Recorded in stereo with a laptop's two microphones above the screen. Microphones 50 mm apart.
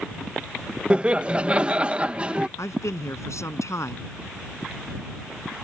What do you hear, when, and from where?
0.9 s laughter: 25° right (ahead or behind)
2.6 s a man speaking: 75° left (ahead or behind)